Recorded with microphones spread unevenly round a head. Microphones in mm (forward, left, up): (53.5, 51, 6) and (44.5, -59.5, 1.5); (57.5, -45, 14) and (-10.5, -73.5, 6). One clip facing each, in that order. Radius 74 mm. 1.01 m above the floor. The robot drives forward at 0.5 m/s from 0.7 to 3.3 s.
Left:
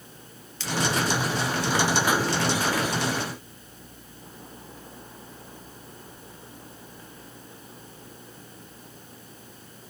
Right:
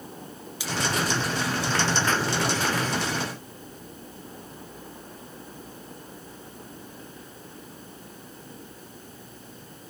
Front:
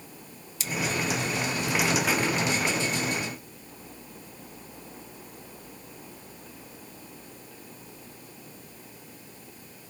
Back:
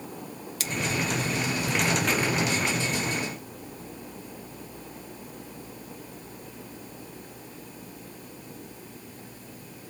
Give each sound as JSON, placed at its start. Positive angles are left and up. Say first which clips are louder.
{"t": 0.6, "sound": "scissors", "louder": "even, even", "azimuth_deg": -175, "distance_m": 1.2}